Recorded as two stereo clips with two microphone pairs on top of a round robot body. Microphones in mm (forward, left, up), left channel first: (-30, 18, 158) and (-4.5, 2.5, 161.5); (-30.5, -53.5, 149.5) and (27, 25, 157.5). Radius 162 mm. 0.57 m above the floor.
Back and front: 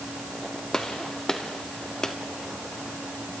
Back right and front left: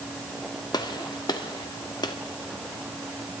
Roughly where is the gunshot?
Behind right.